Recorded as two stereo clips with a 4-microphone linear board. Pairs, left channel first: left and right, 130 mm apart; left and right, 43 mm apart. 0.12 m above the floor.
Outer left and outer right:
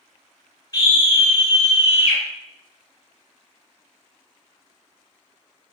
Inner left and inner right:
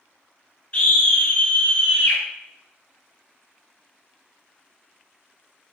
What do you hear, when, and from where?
0.7 s a scream: 30° left (ahead or behind), 1.3 m